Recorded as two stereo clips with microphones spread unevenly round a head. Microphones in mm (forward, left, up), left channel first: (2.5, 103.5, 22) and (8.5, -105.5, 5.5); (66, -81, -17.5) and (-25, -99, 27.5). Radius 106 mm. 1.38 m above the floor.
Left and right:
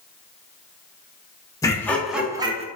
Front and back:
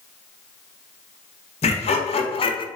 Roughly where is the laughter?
Ahead.